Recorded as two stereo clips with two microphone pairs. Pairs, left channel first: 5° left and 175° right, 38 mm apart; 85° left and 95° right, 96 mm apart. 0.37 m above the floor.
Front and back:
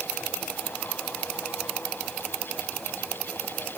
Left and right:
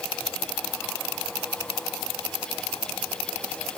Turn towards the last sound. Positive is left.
No sound to turn to.